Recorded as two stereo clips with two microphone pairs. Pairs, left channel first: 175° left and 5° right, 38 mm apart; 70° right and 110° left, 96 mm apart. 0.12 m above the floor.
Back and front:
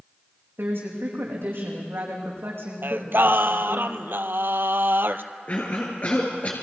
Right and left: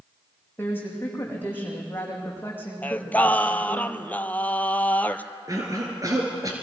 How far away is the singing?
About 0.9 m.